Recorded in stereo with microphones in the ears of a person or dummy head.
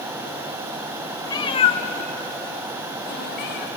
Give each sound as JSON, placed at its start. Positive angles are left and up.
{"t": 1.2, "sound": "a cat meowing", "side_deg": 20, "distance_m": 0.8}